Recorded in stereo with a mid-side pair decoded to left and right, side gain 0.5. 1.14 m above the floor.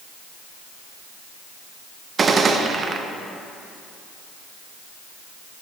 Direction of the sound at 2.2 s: 40° right.